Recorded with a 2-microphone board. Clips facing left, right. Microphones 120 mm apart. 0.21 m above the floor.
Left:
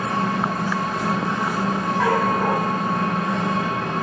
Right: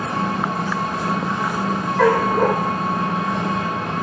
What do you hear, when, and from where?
0.0 s an engine running: 5° right (ahead or behind), 6 m
2.0 s a dog barking: 80° right, 4 m